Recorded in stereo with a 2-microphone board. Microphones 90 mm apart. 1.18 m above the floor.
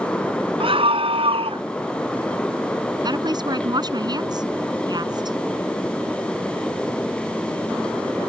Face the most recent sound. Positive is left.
turn(degrees=-50)  # may be behind; listen again after turning